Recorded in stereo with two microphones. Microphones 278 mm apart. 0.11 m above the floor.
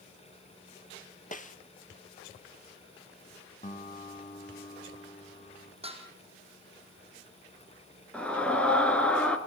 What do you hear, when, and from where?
1.3 s a snare drum: 30° left (ahead or behind), 1.0 m
3.6 s a guitar: 30° left (ahead or behind), 2 m
5.8 s dishes clattering: 20° right (ahead or behind), 3.5 m
8.1 s a scream: 5° left (ahead or behind), 1.7 m